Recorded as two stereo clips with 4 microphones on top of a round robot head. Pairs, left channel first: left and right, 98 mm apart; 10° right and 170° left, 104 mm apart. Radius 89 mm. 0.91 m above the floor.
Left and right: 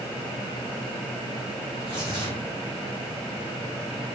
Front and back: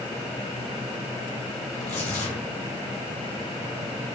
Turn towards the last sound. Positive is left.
turn(degrees=-35)